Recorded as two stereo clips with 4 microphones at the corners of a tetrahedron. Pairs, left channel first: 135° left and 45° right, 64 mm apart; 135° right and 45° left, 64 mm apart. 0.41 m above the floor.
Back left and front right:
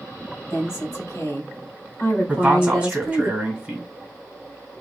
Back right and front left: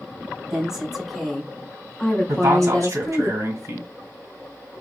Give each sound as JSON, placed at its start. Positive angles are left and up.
{"t": 0.5, "sound": "a woman speaking", "azimuth_deg": 125, "distance_m": 1.6}
{"t": 2.3, "sound": "a man speaking", "azimuth_deg": 30, "distance_m": 1.8}